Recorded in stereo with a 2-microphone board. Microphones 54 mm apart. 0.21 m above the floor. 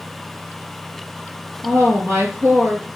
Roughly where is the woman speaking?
Right.